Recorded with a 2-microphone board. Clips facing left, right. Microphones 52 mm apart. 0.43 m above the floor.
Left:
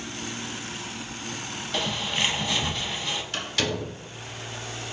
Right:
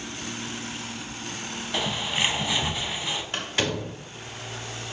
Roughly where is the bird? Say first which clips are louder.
Even; centre.